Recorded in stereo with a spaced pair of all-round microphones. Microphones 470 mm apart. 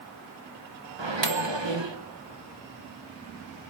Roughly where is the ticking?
I don't hear ticking.